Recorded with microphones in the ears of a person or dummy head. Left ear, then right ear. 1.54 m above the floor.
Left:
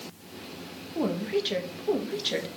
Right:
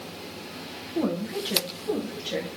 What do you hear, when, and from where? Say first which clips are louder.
0.9 s a woman speaking: left 1 dB; 20° left (ahead or behind), 2 m; by 2.6 s 50° left (ahead or behind), 2.5 m